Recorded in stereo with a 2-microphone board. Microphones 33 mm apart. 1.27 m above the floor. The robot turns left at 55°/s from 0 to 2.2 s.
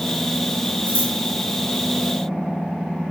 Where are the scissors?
75° left (ahead or behind), 3 m; by 1.1 s 85° left, 3 m.